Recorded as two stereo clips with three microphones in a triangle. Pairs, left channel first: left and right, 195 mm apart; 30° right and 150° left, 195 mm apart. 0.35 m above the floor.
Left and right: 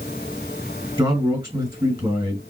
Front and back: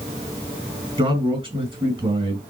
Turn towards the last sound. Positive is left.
turn(degrees=-160)